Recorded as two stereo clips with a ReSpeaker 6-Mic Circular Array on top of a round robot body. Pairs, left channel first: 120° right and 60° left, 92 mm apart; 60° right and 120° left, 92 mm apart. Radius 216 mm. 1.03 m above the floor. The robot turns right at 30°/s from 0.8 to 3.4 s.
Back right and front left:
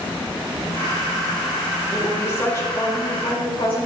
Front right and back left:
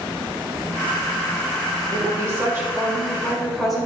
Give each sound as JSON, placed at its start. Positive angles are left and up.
{"t": 1.9, "sound": "a woman speaking", "azimuth_deg": 165, "distance_m": 4.5}